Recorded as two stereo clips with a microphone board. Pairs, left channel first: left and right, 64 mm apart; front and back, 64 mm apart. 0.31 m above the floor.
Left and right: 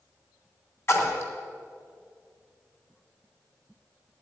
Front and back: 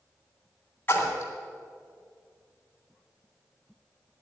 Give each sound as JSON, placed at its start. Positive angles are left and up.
{"t": 0.9, "sound": "a splash", "azimuth_deg": 50, "distance_m": 2.0}